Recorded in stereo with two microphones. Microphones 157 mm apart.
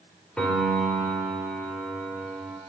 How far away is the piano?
About 1.4 m.